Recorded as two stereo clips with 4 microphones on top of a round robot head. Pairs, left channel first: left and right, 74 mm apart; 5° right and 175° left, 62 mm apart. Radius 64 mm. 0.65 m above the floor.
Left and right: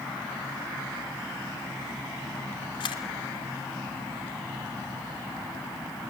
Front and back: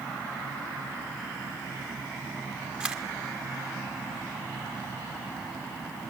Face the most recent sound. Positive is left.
turn(degrees=105)